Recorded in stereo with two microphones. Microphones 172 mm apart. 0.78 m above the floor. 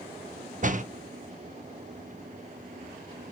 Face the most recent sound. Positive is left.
turn(degrees=-50)  # may be behind; listen again after turning